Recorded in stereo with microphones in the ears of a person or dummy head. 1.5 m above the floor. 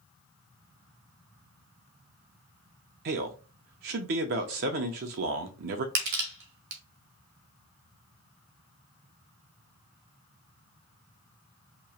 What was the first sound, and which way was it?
A man speaking, 40° right (ahead or behind).